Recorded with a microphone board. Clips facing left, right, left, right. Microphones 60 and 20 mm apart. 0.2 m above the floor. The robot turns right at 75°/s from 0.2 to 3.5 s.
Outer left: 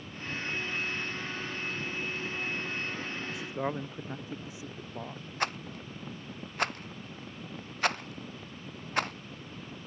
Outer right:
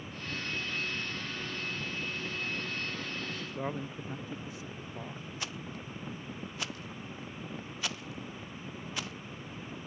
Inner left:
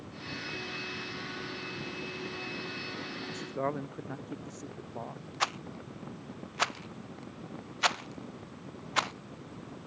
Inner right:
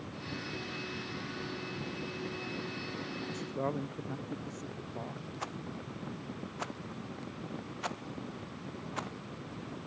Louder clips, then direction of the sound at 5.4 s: Outer left 10 dB, inner left 10 dB; 55° left (ahead or behind).